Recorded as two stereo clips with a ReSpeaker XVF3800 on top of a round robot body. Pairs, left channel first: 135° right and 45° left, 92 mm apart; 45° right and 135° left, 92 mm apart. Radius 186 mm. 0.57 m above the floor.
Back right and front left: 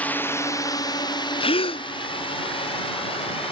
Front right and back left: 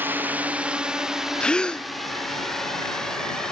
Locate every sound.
0.0 s a drone: 170° left; by 3.5 s 130° right
1.4 s a gasp: 125° right